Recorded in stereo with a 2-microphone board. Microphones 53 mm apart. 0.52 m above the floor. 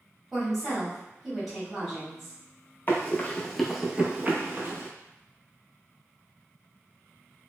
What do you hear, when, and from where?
0.3 s a woman speaking: centre (ahead or behind), 1.3 m
2.9 s running footsteps: 45° left (ahead or behind), 0.6 m; by 4.9 s 55° right (ahead or behind), 0.8 m